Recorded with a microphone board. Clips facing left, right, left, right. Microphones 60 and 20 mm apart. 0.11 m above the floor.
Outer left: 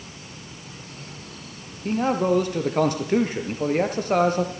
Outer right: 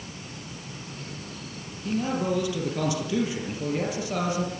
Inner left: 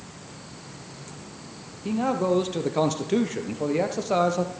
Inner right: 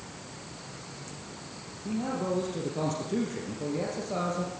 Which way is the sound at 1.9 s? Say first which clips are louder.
Outer left 5 dB, inner left 7 dB; 45° left (ahead or behind).